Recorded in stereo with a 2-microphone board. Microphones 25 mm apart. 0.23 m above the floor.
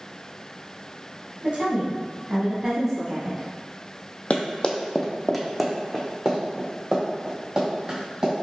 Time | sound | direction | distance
1.4 | a woman speaking | 45° right (ahead or behind) | 1.8 m
4.3 | running footsteps | 55° left (ahead or behind) | 0.5 m